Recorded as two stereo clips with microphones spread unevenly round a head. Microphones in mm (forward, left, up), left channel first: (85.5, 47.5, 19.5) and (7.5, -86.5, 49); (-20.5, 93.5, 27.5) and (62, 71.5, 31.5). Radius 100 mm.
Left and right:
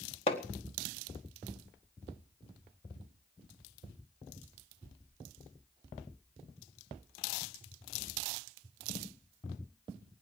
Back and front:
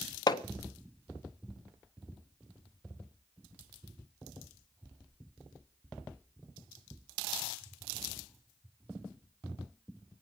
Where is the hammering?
125° left, 1.2 m.